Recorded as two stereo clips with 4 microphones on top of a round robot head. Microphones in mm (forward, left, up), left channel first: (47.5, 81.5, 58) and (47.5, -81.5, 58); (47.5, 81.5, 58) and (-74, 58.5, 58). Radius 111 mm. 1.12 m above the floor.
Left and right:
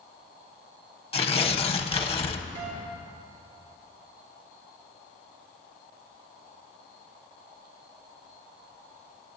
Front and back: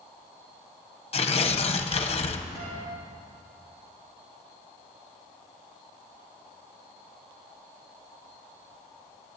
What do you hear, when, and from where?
1.1 s tearing paper: 40° left, 0.9 m
2.5 s a guitar: 130° right, 3 m